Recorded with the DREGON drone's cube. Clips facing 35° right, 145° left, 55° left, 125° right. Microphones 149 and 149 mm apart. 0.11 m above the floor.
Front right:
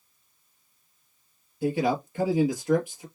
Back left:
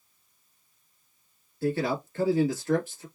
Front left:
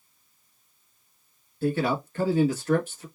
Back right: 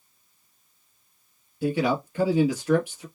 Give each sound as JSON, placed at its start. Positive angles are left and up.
{"t": 1.6, "sound": "a man speaking", "azimuth_deg": -75, "distance_m": 1.1}